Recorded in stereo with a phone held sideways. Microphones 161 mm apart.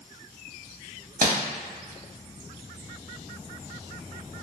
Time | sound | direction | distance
1.2 | crumpling | 65° right (ahead or behind) | 0.7 m